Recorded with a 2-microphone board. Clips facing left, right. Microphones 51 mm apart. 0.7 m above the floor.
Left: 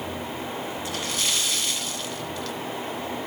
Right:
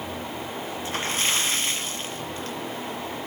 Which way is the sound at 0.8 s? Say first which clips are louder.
Right 4 dB; 30° right (ahead or behind).